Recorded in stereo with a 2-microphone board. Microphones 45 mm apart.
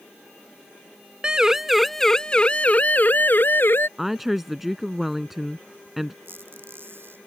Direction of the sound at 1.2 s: 20° right (ahead or behind).